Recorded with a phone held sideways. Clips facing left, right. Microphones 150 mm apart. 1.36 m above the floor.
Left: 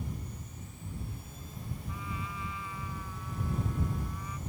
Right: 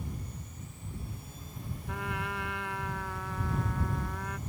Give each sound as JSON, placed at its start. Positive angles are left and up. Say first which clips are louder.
{"t": 1.9, "sound": "a trumpet", "louder": "right 7 dB", "side_deg": -70}